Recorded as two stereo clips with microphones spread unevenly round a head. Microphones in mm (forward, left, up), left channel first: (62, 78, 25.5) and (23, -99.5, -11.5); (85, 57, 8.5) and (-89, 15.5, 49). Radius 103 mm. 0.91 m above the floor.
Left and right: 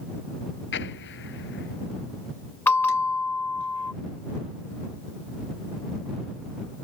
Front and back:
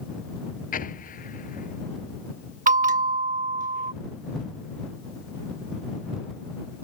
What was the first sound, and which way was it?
An explosion, 60° left.